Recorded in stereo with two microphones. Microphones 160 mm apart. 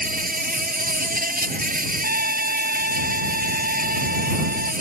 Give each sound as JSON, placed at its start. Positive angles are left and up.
{"t": 0.0, "sound": "an insect", "side_deg": -65}
{"t": 2.0, "sound": "a trumpet", "side_deg": -75}